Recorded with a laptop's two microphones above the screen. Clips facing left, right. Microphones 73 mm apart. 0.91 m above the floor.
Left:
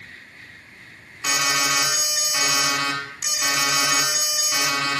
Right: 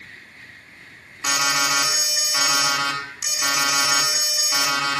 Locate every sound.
1.2 s an alarm: centre (ahead or behind), 8 m